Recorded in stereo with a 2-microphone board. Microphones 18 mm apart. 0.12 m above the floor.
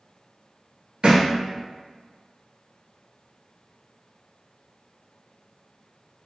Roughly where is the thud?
Right.